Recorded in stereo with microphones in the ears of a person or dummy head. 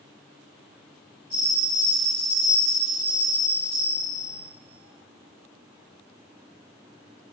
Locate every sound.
1.3 s a bell: 25° left (ahead or behind), 1.6 m